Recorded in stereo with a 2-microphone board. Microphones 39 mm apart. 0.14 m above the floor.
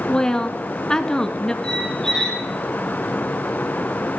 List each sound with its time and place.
0.1 s a woman speaking: 20° left (ahead or behind), 1.4 m
1.6 s a squeak: 15° left (ahead or behind), 3.5 m